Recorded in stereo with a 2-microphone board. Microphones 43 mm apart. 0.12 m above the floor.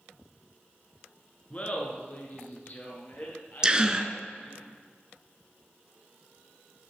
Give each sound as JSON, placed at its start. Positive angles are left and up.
{"t": 1.5, "sound": "laughter", "side_deg": 30, "distance_m": 1.5}
{"t": 3.6, "sound": "a gasp", "side_deg": -20, "distance_m": 0.6}